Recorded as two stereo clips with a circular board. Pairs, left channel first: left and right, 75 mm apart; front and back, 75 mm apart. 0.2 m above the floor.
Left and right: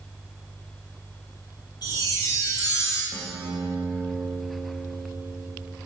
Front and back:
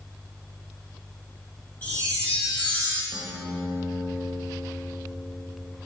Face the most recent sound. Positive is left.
turn(degrees=-60)